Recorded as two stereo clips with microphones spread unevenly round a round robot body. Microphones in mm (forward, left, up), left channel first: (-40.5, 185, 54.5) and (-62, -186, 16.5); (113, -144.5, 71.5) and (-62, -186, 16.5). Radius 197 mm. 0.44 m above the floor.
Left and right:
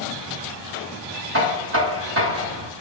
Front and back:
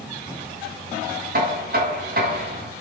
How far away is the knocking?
About 3.5 m.